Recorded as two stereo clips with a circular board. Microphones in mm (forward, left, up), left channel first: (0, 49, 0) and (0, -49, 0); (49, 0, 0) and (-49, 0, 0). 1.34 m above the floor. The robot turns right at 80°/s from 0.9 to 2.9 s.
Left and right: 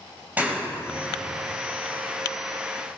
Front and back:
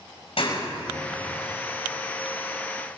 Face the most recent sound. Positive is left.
turn(degrees=145)